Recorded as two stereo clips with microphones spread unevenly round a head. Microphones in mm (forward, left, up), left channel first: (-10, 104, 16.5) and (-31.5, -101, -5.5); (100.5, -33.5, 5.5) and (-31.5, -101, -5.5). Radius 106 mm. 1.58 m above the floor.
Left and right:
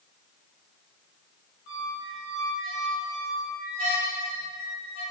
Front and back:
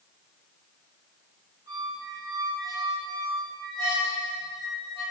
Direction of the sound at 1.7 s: 70° left.